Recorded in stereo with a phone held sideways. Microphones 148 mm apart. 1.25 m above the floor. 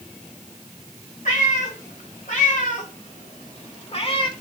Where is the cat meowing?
75° left (ahead or behind), 3 m; by 4.3 s 35° left (ahead or behind), 1.0 m.